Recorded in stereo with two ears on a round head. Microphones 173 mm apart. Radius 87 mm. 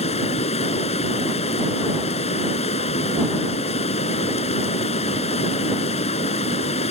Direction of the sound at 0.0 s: 35° left (ahead or behind).